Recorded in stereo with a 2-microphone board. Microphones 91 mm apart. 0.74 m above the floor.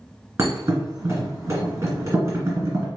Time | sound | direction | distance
0.4 | a thud | 30° right (ahead or behind) | 2 m